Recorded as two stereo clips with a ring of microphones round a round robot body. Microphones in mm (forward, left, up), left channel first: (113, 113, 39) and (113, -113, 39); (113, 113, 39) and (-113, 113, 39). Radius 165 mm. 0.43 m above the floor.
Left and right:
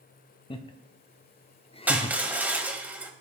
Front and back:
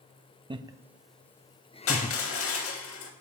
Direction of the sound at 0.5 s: 135° left.